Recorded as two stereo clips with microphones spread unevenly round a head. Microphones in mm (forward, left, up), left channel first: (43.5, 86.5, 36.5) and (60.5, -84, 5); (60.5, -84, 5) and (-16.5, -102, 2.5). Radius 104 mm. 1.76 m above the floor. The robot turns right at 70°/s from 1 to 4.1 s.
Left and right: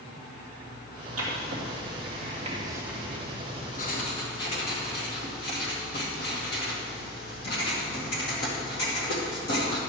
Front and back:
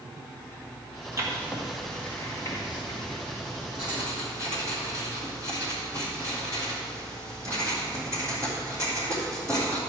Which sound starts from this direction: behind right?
Writing, at 1.2 s.